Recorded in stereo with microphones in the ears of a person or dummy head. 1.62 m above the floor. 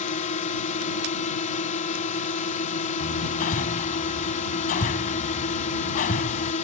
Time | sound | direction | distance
0.0 | a drone | 40° left (ahead or behind) | ?
3.0 | hammering | 45° left (ahead or behind) | ?